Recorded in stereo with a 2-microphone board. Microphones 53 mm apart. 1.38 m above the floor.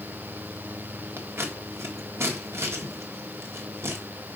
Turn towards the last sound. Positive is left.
turn(degrees=-55)  # may be behind; listen again after turning